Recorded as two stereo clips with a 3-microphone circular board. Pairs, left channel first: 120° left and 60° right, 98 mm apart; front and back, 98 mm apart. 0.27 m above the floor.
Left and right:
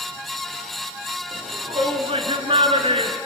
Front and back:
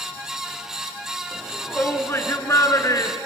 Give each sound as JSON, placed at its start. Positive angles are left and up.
{"t": 1.3, "sound": "a shout", "azimuth_deg": -70, "distance_m": 3.0}